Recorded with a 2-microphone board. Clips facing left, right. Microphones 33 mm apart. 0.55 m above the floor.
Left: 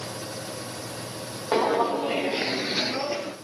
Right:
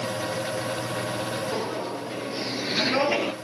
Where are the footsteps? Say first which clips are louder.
Left 7 dB; 75° left (ahead or behind), 1.7 m; by 3.3 s 55° right (ahead or behind), 1.0 m.